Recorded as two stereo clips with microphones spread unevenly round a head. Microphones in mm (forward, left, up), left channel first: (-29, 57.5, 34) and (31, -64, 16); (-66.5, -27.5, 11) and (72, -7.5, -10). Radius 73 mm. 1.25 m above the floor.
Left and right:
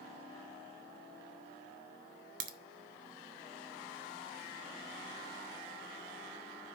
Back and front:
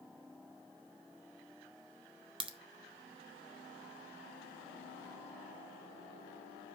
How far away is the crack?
About 0.7 m.